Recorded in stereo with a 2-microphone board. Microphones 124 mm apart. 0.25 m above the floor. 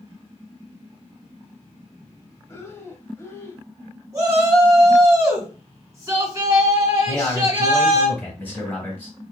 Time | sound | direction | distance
2.5 | breathing | 25° left (ahead or behind) | 0.6 m
4.1 | a shout | 25° right (ahead or behind) | 1.6 m
7.1 | a man speaking | 15° left (ahead or behind) | 1.3 m